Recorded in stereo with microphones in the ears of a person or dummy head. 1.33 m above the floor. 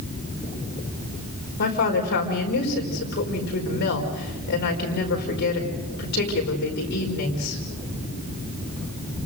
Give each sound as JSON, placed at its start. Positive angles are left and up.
{"t": 1.6, "sound": "a woman speaking", "side_deg": 55, "distance_m": 4.5}